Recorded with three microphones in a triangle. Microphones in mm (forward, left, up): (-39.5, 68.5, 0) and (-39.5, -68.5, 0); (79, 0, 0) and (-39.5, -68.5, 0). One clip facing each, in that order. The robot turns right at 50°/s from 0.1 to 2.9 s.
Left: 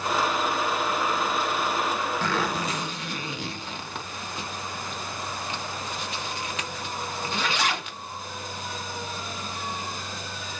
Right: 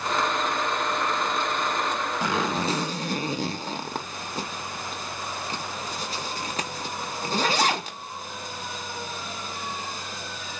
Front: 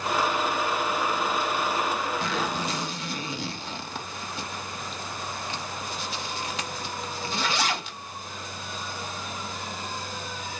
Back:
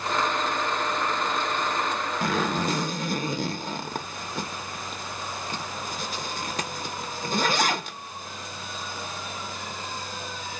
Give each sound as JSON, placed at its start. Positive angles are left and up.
{"t": 2.2, "sound": "a zipper", "azimuth_deg": -165, "distance_m": 0.7}